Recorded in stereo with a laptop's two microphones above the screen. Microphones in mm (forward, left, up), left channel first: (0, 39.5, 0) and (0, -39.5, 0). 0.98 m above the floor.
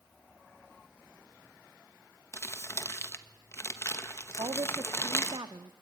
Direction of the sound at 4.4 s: 80° right.